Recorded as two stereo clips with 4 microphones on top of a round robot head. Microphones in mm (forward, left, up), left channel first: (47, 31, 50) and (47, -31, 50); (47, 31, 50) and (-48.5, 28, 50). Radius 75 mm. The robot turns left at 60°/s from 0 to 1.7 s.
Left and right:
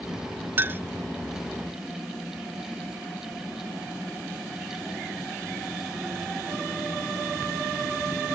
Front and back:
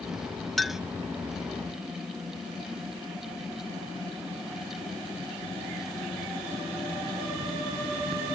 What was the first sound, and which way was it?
A clink, 85° right.